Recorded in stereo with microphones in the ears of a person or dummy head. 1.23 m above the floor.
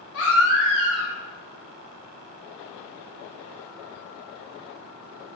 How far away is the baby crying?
About 0.6 m.